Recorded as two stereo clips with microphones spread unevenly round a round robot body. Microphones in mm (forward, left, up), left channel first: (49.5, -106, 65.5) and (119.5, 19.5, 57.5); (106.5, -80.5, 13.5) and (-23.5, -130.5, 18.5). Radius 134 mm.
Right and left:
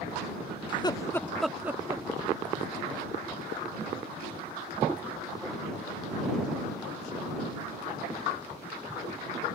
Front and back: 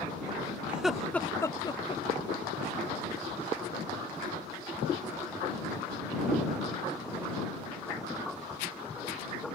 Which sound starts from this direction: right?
Laughter, at 0.7 s.